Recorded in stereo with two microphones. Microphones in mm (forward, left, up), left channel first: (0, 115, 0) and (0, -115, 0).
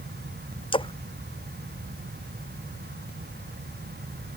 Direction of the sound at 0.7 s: 25° left (ahead or behind).